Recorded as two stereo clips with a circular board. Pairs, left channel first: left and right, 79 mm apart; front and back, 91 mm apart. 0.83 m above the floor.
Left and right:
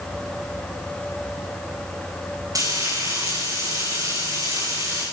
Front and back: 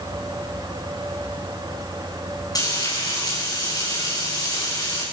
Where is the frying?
50° right, 8.5 m.